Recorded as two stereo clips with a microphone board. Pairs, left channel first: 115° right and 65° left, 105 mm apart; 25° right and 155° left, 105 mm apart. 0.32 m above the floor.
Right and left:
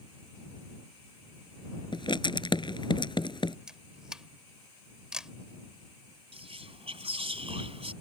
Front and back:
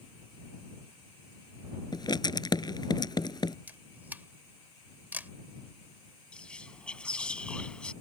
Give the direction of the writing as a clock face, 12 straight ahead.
2 o'clock.